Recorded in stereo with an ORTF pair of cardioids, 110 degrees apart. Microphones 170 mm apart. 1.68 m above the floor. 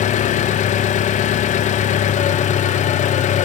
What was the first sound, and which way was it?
An engine running, 45° left.